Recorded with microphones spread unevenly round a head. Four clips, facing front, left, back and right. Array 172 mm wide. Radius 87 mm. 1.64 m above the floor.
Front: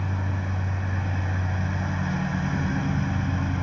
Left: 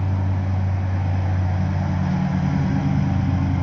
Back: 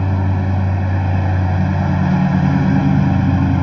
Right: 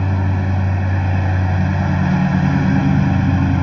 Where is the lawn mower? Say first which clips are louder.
Right 6 dB, back 11 dB; 145° right.